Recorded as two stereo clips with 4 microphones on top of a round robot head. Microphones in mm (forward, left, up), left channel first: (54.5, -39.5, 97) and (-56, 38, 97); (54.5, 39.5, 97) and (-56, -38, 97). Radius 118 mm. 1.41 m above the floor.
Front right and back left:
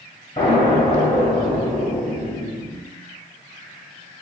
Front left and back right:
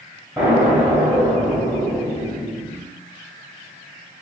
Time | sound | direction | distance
0.4 | an explosion | 70° right | 0.9 m